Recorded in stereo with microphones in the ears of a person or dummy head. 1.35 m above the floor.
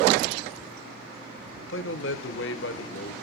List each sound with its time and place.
1.7 s a man speaking: 65° left (ahead or behind), 1.1 m